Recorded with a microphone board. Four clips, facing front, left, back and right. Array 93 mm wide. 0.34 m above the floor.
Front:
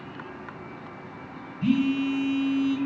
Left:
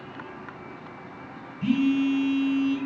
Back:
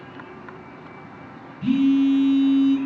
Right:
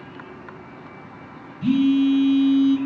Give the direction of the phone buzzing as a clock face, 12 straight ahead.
10 o'clock.